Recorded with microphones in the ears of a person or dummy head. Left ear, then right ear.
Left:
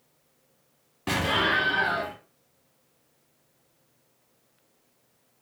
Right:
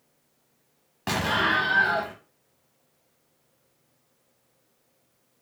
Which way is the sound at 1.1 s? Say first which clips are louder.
Even; 25° right (ahead or behind).